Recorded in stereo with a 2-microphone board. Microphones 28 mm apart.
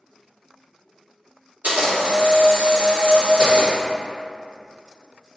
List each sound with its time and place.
1.6 s a camera shutter: 60° right (ahead or behind), 1.8 m